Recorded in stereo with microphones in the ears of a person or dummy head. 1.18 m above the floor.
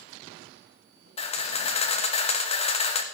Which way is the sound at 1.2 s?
35° left (ahead or behind).